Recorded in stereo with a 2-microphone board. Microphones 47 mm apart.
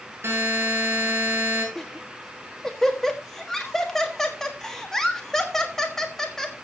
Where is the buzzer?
50° right (ahead or behind), 7.5 m.